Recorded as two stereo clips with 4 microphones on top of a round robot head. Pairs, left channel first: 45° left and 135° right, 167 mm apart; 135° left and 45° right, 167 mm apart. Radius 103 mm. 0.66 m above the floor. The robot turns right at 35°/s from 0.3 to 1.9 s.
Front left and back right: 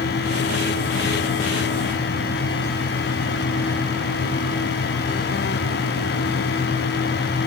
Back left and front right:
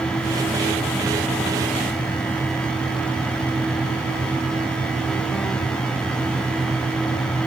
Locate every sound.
Only background noise.